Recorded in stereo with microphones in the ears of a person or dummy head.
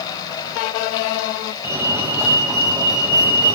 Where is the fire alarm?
10° right (ahead or behind), 3.5 m.